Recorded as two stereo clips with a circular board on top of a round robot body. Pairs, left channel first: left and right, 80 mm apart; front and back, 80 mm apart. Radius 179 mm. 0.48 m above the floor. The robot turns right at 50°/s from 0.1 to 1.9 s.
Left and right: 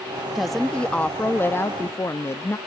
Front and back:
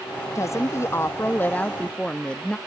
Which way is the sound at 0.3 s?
5° right.